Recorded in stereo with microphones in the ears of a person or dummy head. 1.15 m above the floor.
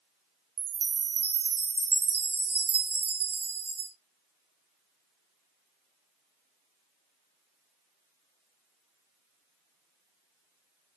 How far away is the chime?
About 0.8 m.